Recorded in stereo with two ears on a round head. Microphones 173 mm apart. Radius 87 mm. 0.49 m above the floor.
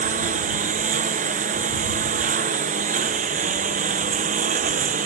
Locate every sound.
0.0 s a lawn mower: 40° right (ahead or behind)